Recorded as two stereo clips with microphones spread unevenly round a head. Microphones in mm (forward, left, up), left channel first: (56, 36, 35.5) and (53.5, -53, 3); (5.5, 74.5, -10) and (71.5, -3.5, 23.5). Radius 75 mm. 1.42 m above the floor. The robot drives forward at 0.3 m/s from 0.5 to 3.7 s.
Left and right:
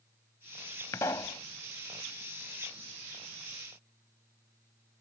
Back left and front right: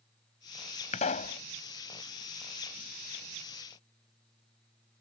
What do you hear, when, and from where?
0.9 s a pop: 125° left; by 1.4 s 130° left